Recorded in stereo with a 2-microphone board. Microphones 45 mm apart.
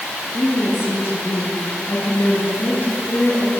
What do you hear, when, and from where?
0.3 s a woman speaking: 60° left (ahead or behind), 10 m; by 3.5 s 45° left (ahead or behind), 8 m